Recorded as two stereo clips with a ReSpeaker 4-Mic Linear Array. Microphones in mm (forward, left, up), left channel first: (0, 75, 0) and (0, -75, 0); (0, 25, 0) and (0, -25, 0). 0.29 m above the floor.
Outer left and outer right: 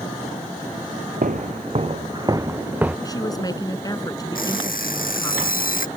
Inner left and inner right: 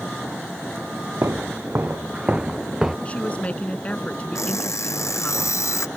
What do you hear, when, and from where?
1.2 s footsteps: 65° right (ahead or behind); by 3.0 s 10° right (ahead or behind)
3.0 s a woman speaking: 25° left (ahead or behind)
4.3 s an alarm clock: 70° left (ahead or behind)